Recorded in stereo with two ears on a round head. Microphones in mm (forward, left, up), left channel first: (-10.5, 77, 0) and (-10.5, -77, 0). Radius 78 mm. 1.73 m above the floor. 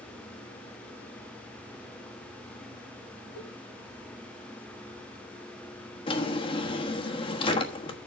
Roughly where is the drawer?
Left.